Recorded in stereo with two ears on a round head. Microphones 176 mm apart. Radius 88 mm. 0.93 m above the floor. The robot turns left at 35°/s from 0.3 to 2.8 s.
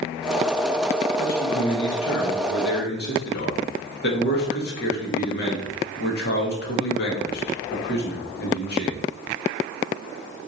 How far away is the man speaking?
About 1.7 m.